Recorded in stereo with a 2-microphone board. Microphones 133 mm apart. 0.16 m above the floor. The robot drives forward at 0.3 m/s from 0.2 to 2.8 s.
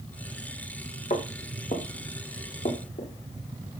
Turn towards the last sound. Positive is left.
turn(degrees=85)